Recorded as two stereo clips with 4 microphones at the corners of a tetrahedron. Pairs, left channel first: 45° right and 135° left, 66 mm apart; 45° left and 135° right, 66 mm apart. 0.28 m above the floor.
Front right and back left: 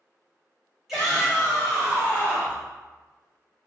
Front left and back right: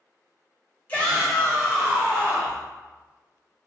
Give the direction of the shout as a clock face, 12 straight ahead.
10 o'clock.